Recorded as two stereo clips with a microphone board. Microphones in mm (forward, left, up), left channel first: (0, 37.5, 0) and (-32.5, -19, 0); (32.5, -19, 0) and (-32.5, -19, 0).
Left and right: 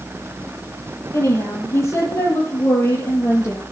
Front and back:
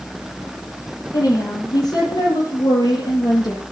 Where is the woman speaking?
20° left, 7 m; by 3.6 s 10° left, 5 m.